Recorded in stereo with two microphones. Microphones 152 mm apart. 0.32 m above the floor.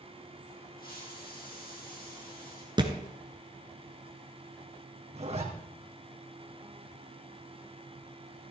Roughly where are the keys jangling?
I don't hear keys jangling.